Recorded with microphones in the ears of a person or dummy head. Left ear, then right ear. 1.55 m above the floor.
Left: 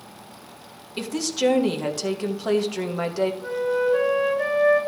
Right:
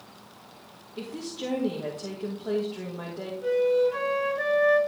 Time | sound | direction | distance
1.0 | a woman speaking | 65° left (ahead or behind) | 1.8 m
3.4 | a flute | 50° right (ahead or behind) | 4 m